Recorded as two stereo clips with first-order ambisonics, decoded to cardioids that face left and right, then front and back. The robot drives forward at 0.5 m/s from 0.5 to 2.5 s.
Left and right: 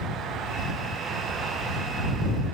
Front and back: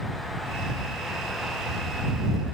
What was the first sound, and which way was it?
Only background noise.